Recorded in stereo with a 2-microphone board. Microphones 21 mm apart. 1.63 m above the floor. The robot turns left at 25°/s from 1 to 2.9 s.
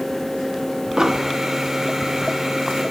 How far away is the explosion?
About 1.1 m.